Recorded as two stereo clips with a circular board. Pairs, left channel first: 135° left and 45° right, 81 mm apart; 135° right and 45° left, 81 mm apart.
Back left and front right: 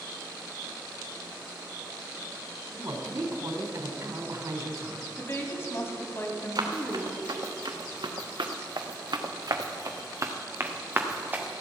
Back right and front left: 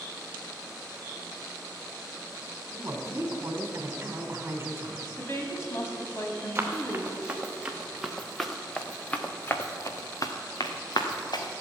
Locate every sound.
2.7 s a woman speaking: 10° right, 2.0 m
5.2 s a woman speaking: straight behind, 2 m
6.5 s running footsteps: 20° right, 2.5 m; by 11.6 s 115° right, 2 m